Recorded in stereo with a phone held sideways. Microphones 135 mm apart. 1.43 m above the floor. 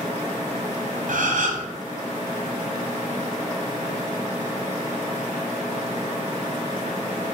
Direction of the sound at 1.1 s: 75° right (ahead or behind).